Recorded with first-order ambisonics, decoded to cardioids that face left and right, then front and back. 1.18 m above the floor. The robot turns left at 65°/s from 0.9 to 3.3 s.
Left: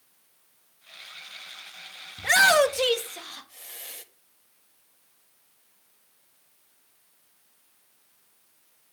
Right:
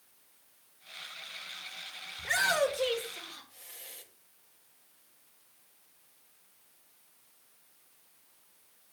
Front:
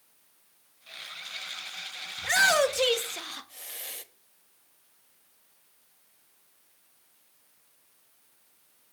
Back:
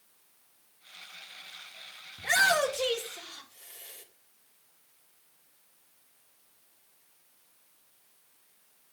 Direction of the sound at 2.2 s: 100° left.